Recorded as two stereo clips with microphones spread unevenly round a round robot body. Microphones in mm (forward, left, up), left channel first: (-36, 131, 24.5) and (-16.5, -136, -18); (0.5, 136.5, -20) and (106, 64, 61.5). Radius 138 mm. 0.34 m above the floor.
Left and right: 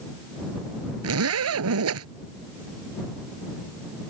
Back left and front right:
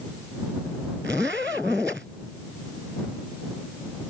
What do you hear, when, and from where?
1.0 s a zipper: 120° right